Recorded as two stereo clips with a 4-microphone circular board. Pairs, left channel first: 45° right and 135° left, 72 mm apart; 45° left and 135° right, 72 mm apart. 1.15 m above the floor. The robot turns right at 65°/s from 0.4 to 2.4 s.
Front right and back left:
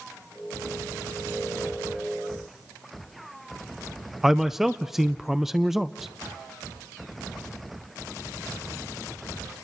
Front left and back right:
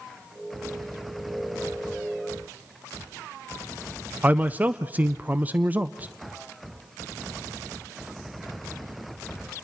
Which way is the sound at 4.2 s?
145° right.